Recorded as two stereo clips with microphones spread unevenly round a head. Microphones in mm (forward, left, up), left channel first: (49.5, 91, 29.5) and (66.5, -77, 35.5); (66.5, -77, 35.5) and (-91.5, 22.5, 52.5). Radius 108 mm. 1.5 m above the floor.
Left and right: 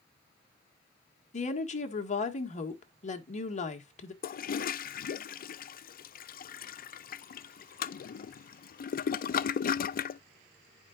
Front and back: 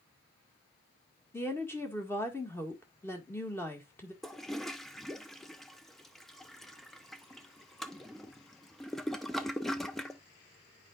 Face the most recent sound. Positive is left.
turn(degrees=55)